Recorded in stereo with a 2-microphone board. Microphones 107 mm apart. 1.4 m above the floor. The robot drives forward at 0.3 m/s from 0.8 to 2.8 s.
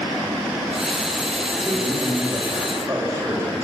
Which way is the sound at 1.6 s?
25° right (ahead or behind).